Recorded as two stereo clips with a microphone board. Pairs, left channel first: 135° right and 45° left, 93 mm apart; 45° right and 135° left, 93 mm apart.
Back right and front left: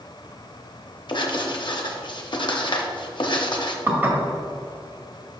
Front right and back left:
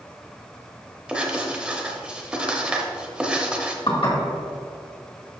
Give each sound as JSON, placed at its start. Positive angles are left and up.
{"t": 1.1, "sound": "writing", "azimuth_deg": -150, "distance_m": 0.8}
{"t": 3.9, "sound": "dishes clattering", "azimuth_deg": -20, "distance_m": 1.5}